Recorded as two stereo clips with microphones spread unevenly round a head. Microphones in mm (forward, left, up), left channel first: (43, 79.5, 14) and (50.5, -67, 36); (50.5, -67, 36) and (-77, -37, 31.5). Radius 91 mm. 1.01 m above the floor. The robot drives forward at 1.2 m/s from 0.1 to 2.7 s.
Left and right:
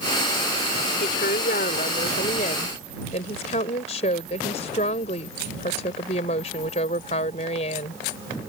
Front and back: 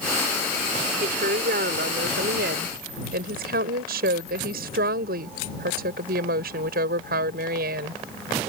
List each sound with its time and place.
1.0 s a woman speaking: 135° left; by 8.0 s 150° left